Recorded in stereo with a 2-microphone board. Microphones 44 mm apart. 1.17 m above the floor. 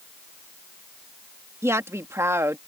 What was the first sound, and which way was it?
A woman speaking, 85° right.